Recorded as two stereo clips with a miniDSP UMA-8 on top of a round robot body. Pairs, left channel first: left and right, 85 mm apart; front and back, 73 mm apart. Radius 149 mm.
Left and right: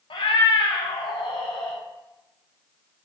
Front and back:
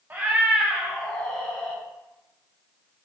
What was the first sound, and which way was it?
A cat meowing, 110° left.